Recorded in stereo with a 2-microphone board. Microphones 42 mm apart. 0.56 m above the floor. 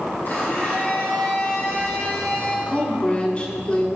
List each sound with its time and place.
0.2 s a blender: 50° left (ahead or behind), 2.5 m
2.7 s a woman speaking: 30° left (ahead or behind), 1.4 m